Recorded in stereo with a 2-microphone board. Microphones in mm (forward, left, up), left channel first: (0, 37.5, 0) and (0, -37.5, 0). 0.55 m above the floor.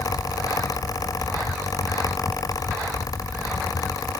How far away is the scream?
No scream in this recording.